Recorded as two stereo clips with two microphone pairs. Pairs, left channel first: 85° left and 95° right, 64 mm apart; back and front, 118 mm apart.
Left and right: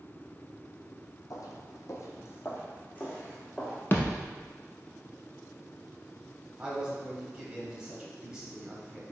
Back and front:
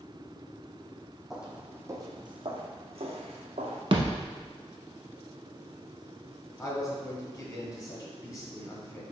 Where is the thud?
40° left, 0.7 m.